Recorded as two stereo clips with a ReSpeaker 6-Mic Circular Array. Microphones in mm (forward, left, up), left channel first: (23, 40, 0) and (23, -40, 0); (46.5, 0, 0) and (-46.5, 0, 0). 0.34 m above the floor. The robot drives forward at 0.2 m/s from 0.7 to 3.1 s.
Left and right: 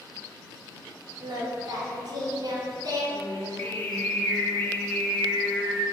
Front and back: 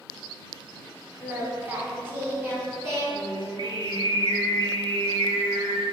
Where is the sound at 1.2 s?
105° right, 1.0 m; by 3.0 s 125° right, 1.1 m.